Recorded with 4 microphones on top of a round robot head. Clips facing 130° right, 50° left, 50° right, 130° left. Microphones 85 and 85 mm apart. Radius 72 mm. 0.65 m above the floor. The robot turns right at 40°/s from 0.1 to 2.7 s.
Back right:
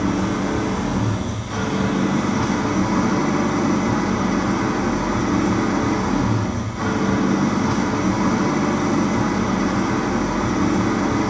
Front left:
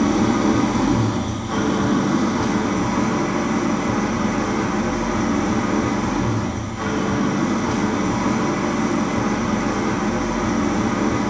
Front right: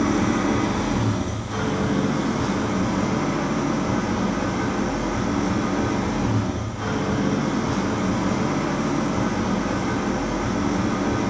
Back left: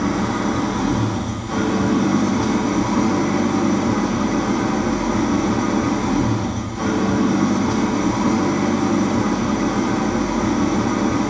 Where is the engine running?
45° left, 1.5 m; by 11.3 s 150° left, 1.5 m.